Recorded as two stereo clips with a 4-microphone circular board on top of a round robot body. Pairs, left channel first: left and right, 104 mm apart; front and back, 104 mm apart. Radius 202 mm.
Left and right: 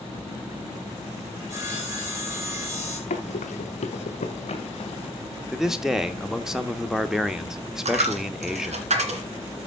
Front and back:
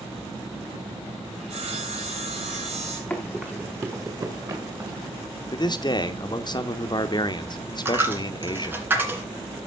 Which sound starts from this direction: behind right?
Sawing, at 1.4 s.